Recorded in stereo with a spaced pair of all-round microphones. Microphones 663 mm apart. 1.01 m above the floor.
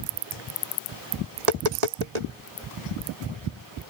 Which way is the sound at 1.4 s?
70° right (ahead or behind).